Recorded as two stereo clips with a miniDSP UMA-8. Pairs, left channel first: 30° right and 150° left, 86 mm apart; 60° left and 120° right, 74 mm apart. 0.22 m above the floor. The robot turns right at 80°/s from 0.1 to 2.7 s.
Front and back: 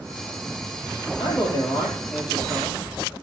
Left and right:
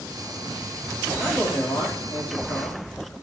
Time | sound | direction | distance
1.2 | a man speaking | 15° right | 5 m